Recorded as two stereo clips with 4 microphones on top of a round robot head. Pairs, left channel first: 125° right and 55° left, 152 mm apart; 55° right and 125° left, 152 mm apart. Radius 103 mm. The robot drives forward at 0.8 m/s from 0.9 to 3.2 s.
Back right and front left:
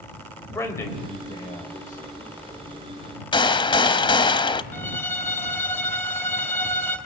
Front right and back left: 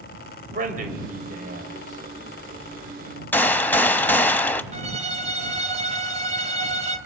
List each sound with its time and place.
0.5 s a man speaking: 160° left, 2.5 m; by 2.4 s 165° left, 3.5 m
3.3 s a gunshot: 120° right, 0.8 m
4.7 s a violin: 160° left, 1.4 m